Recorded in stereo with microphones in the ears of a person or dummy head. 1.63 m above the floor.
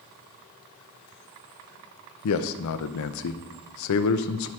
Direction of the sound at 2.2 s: 85° left.